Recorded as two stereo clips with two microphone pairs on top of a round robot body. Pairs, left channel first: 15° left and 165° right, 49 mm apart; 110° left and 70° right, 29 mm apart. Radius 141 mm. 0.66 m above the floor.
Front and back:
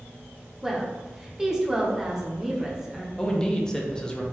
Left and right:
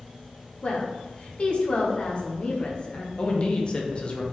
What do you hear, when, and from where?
0.6 s a woman speaking: 110° left, 1.2 m
3.2 s a man speaking: 80° left, 0.9 m